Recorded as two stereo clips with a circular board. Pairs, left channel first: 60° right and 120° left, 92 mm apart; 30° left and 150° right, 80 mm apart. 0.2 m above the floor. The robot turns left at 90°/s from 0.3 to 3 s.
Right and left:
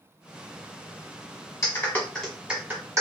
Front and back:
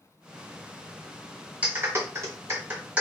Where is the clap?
90° right, 1.5 m; by 3.0 s 145° left, 1.5 m.